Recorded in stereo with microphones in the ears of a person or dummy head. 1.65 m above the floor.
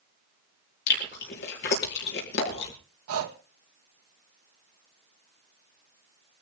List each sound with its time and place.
0.9 s chewing: 55° left (ahead or behind), 4 m
3.1 s breathing: 75° right (ahead or behind), 2 m